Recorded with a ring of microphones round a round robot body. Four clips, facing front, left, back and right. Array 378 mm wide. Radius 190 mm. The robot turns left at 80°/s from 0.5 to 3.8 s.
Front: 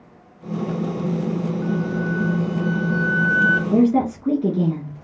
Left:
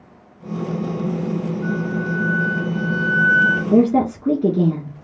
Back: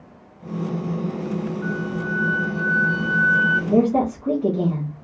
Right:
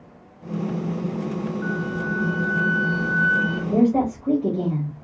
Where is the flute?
90° right, 2.5 m; by 3.6 s 110° left, 2.5 m.